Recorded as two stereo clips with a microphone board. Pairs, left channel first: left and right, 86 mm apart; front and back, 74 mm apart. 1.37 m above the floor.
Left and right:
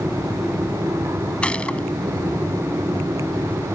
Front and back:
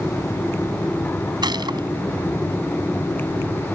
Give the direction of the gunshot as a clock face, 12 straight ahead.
6 o'clock.